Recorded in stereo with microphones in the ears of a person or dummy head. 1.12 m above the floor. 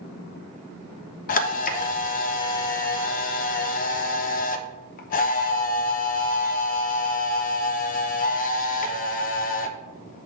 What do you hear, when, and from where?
1.3 s a camera shutter: 35° left (ahead or behind), 0.9 m